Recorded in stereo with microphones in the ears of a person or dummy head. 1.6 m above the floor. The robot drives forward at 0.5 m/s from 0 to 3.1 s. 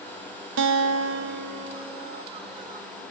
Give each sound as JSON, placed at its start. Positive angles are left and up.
{"t": 0.6, "sound": "a guitar", "side_deg": -75, "distance_m": 0.5}